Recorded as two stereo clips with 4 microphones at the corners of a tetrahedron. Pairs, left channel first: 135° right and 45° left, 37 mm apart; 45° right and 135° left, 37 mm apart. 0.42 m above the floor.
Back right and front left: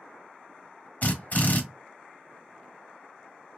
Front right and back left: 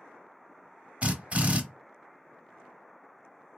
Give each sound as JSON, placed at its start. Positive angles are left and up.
{"t": 1.0, "sound": "a drill", "azimuth_deg": -175, "distance_m": 1.0}